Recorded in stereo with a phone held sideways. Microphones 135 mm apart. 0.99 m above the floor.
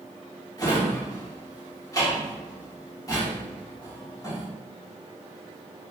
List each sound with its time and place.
0.6 s a drawer: 30° left (ahead or behind), 1.0 m